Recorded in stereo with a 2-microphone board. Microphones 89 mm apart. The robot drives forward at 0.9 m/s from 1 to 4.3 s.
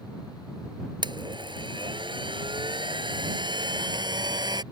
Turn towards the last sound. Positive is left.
turn(degrees=-55)  # may be behind; listen again after turning